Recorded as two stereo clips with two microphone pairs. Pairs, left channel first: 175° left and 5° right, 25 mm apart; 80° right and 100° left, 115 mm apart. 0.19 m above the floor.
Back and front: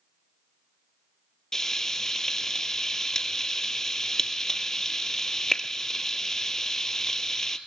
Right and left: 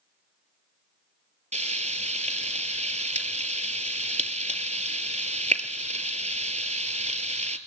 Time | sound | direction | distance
1.5 | frying | 105° left | 0.9 m